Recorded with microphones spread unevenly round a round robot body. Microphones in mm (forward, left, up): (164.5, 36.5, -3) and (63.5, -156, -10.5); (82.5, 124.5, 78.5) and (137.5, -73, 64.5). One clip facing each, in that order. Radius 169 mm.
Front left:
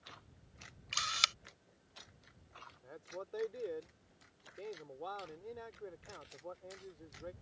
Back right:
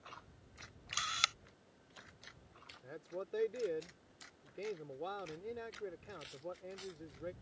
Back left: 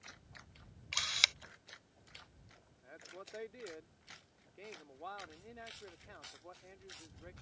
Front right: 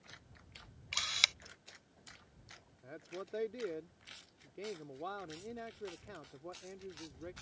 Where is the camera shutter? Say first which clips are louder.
Front left 1 dB, even; 15° left.